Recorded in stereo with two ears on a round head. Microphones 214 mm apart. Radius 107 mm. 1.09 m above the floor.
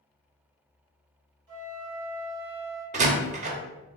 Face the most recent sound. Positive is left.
turn(degrees=-30)  # may be behind; listen again after turning